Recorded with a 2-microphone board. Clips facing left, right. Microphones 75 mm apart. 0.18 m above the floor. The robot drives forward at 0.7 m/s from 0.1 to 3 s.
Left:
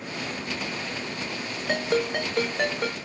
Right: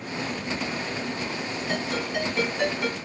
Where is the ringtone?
55° left (ahead or behind), 2 m; by 3.0 s 40° left (ahead or behind), 2.5 m.